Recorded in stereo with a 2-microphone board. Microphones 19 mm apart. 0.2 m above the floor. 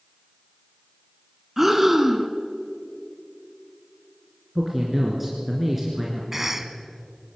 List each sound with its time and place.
1.6 s breathing: 15° right (ahead or behind), 1.3 m
4.5 s a man speaking: 5° right (ahead or behind), 2.5 m
6.3 s a cough: 15° right (ahead or behind), 1.3 m